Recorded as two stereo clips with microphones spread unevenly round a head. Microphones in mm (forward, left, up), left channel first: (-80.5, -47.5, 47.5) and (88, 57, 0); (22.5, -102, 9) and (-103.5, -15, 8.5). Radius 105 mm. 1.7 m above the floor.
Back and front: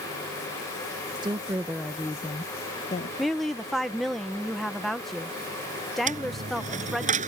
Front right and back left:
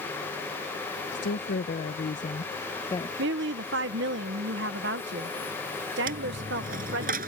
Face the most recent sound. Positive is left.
turn(degrees=90)